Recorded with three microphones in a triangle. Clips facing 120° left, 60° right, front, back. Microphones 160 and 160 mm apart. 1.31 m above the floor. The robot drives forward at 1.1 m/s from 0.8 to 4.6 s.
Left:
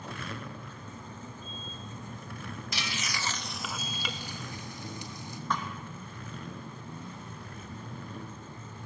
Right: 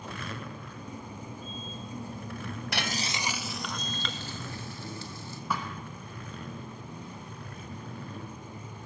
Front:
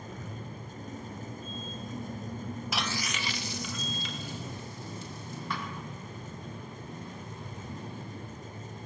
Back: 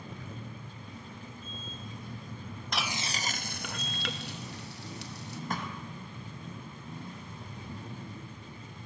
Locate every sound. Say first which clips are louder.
2.7 s frying: right 5 dB, back 1 dB; 85° right, 0.5 m; by 5.4 s 165° right, 2 m
5.5 s a thud: even, back 1 dB; 140° right, 3 m